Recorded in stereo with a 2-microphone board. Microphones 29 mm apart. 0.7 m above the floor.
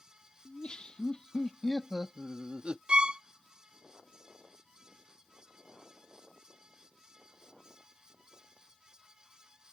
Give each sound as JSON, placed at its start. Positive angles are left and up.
{"t": 0.5, "sound": "laughter", "side_deg": 40}
{"t": 2.9, "sound": "a violin", "side_deg": -35}